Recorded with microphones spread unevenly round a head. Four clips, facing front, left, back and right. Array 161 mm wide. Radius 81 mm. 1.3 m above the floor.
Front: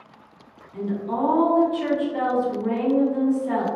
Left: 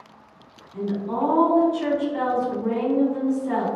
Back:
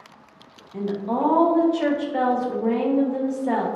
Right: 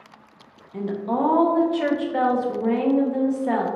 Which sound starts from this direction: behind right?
A woman speaking, at 0.7 s.